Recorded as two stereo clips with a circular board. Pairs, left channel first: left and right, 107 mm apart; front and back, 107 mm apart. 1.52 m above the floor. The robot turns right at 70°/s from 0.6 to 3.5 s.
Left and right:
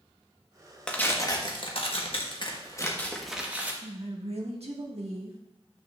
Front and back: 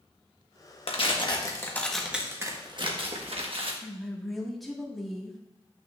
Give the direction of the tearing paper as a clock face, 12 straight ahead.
12 o'clock.